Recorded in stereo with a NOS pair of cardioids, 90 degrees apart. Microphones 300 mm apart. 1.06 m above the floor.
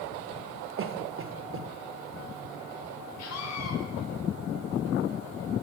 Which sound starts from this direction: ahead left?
A scream, at 3.2 s.